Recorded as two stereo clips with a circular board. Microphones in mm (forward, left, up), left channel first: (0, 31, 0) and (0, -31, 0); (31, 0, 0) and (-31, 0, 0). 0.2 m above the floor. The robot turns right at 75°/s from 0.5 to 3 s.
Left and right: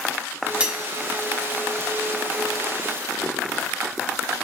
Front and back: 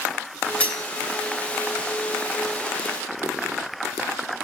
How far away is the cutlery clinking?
About 0.6 m.